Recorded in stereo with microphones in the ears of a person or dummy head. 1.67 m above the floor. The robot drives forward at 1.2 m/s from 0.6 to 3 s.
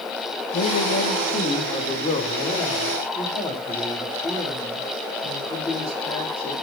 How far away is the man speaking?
About 1.8 m.